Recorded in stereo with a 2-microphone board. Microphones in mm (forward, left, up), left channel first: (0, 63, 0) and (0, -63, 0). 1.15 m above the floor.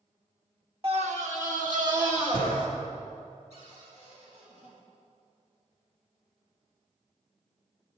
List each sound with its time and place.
0.8 s a scream: 45° right (ahead or behind), 1.1 m; by 2.7 s 75° right (ahead or behind), 3 m
3.5 s a cupboard door: 60° right (ahead or behind), 3.5 m